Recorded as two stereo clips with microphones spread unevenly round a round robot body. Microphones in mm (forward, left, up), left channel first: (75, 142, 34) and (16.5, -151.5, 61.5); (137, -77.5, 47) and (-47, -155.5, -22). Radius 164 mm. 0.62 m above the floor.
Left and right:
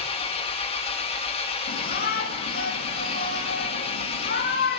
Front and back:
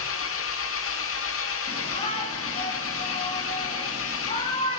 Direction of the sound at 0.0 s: 10° left.